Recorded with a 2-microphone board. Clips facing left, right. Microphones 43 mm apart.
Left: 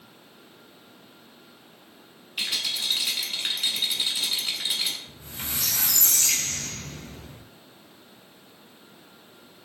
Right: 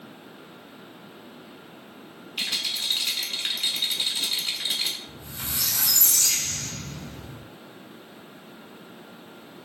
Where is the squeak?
35° left (ahead or behind), 0.8 m.